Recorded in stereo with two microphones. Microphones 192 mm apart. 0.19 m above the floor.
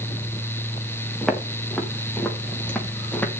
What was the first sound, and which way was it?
Footsteps, centre (ahead or behind).